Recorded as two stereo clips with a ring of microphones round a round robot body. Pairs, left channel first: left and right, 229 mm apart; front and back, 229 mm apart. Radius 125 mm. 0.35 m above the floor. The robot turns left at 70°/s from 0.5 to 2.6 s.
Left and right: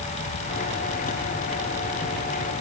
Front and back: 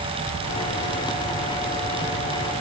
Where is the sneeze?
No sneeze in this recording.